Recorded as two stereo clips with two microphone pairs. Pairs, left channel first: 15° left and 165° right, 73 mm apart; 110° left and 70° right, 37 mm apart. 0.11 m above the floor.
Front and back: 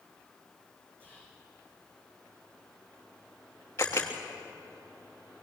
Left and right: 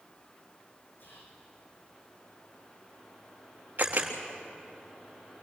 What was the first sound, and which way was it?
Whispering, 130° left.